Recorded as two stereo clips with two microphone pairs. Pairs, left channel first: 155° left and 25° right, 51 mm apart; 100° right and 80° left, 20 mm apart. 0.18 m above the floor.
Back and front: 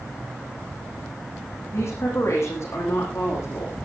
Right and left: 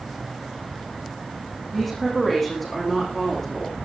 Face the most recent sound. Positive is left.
turn(degrees=180)